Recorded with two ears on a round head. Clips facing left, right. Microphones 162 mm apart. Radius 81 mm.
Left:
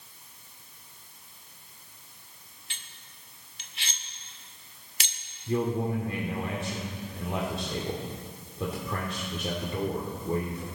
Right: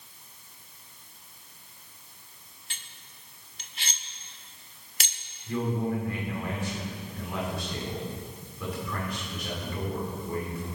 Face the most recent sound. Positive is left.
turn(degrees=25)  # may be behind; listen again after turning